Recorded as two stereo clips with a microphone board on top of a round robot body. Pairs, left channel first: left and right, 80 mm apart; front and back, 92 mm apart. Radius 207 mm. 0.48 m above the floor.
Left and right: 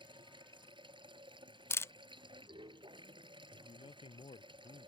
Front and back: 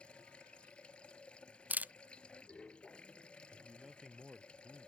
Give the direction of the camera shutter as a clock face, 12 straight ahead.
8 o'clock.